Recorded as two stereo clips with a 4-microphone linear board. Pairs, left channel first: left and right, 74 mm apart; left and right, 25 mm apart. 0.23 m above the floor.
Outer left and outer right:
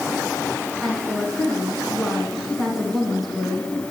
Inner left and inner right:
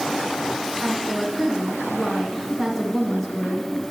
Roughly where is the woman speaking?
Centre.